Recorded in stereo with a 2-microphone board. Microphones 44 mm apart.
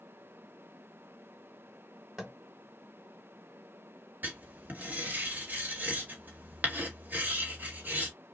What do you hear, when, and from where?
2.2 s tapping: 10° right (ahead or behind), 1.4 m
4.2 s writing: 40° right (ahead or behind), 1.6 m